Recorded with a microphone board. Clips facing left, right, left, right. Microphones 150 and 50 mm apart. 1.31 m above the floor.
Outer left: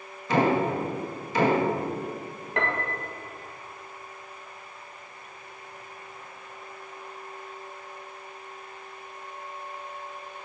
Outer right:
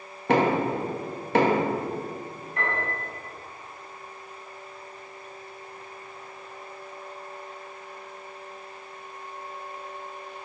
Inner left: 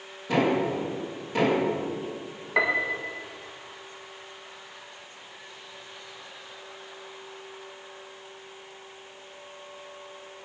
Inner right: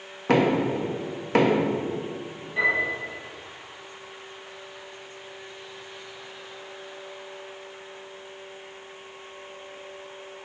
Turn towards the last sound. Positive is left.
turn(degrees=85)